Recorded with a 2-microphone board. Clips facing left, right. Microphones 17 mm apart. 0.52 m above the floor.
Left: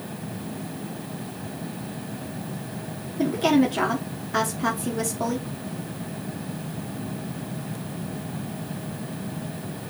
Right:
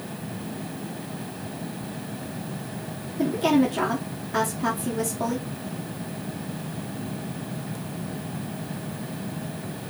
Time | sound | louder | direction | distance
3.2 | a woman speaking | left 1 dB | 20° left (ahead or behind) | 0.9 m